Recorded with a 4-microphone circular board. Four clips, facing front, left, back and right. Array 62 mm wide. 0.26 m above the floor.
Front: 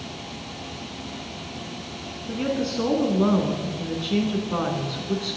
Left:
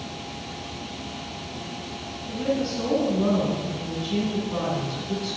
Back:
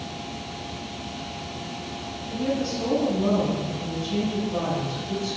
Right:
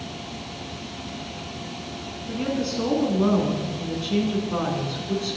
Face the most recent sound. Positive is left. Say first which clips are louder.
# left 1 dB, front 1 dB
turn(degrees=-25)